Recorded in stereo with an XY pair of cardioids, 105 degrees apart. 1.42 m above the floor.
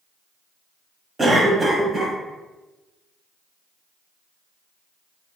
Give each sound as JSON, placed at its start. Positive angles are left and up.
{"t": 1.2, "sound": "a cough", "azimuth_deg": -25, "distance_m": 1.1}